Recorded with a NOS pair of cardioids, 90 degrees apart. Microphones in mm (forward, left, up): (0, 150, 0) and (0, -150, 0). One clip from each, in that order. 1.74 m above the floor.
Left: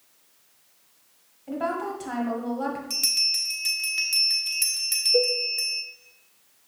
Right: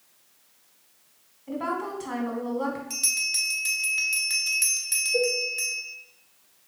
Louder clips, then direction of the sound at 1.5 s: Left 1 dB; 10° left.